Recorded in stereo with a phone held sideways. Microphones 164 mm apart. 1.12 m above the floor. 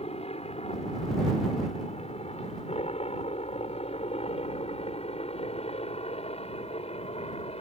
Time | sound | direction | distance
0.0 | a helicopter | 40° left (ahead or behind) | ?